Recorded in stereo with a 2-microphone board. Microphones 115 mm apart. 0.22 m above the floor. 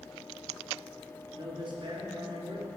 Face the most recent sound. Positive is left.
turn(degrees=-45)  # may be behind; listen again after turning